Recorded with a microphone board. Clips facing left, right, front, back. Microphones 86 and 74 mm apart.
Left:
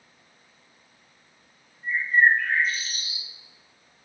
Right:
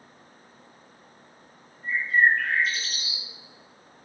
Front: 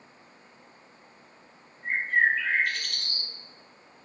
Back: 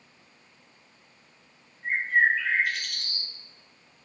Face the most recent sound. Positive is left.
turn(degrees=-90)